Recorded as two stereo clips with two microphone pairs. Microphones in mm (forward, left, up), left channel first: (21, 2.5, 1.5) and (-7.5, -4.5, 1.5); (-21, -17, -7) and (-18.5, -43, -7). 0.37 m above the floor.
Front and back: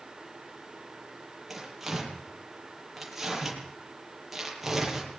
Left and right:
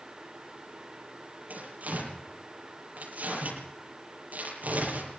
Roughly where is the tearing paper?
Right.